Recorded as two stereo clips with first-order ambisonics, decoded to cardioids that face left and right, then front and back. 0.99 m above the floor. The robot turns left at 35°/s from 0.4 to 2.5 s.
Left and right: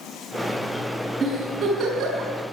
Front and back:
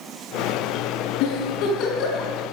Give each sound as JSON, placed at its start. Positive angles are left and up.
{"t": 1.2, "sound": "a giggle", "azimuth_deg": -5, "distance_m": 5.0}